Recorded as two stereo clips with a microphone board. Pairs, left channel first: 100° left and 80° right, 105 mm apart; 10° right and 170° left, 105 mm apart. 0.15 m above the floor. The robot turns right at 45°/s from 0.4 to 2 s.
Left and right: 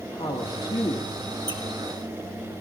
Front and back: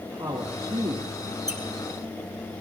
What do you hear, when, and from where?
0.1 s a woman speaking: 125° left, 3 m; by 1.3 s 170° left, 3 m
1.5 s a squeak: 130° right, 2 m; by 1.6 s 125° right, 2 m